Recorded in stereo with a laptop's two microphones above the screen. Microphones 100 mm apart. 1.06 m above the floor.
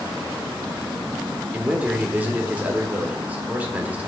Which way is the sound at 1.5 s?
15° right (ahead or behind).